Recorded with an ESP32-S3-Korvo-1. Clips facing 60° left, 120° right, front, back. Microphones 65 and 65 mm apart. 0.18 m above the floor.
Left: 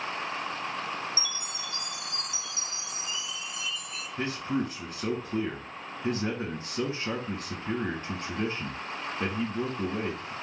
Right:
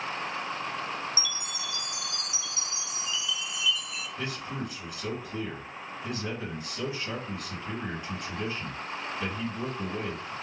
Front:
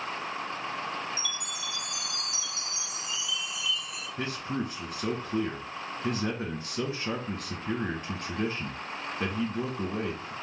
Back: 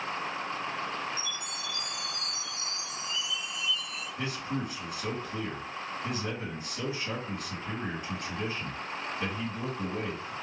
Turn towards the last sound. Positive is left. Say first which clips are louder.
# left 7 dB, front 2 dB
turn(degrees=25)